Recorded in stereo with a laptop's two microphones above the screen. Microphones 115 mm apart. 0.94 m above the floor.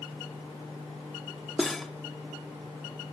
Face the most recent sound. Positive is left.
turn(degrees=0)  # may be behind; listen again after turning